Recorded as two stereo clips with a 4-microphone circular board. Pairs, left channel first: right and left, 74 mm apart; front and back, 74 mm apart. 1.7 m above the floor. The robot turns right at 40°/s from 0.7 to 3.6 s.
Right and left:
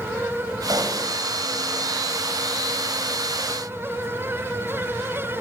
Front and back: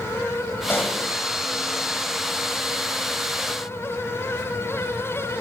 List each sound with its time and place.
0.7 s a pop: 60° left, 7 m; by 1.0 s 75° left, 7 m